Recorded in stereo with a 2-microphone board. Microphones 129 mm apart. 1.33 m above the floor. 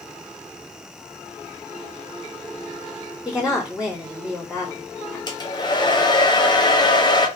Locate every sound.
3.2 s a woman speaking: centre (ahead or behind), 1.6 m
5.3 s a hair dryer: 35° left (ahead or behind), 0.5 m